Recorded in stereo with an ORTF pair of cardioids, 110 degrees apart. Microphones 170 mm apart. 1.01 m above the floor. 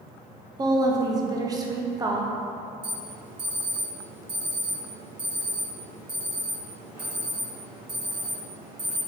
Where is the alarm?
25° right, 1.8 m.